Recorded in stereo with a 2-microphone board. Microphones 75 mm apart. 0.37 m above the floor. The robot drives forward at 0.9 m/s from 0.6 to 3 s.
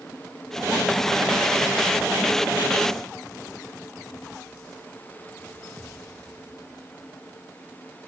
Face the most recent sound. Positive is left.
No sound to turn to.